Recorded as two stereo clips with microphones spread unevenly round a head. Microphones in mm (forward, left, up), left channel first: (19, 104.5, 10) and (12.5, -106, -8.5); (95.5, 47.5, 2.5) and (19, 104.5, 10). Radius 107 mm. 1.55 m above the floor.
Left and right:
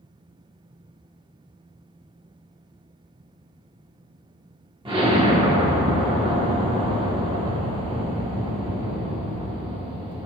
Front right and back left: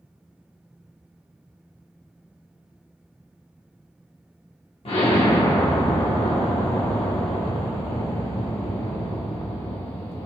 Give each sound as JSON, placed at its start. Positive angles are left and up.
{"t": 4.8, "sound": "an explosion", "azimuth_deg": -25, "distance_m": 1.2}